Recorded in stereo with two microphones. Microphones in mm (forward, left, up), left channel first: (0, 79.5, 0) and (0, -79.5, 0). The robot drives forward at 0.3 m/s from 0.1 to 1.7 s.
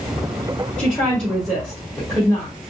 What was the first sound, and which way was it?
A woman speaking, 5° left (ahead or behind).